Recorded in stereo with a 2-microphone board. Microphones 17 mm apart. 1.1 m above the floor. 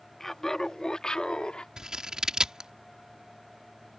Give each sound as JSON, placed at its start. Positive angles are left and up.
{"t": 0.2, "sound": "laughter", "side_deg": 20}
{"t": 1.8, "sound": "scissors", "side_deg": -50}